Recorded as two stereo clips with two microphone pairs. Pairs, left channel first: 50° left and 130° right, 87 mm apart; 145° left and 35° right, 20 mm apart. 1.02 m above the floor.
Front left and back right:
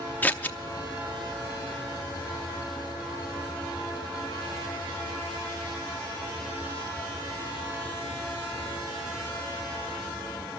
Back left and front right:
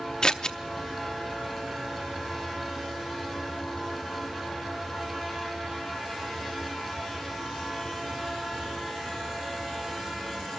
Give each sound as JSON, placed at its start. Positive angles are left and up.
{"t": 0.2, "sound": "scissors", "azimuth_deg": 115, "distance_m": 0.6}